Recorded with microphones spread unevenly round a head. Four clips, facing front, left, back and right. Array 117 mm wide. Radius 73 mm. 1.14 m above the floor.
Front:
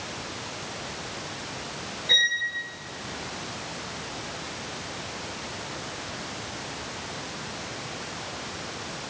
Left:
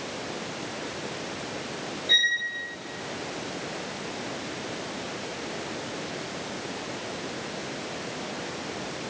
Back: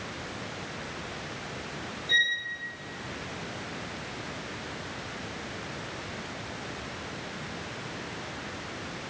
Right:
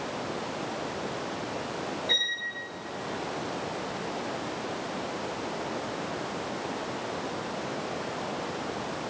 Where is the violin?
50° right, 3 m.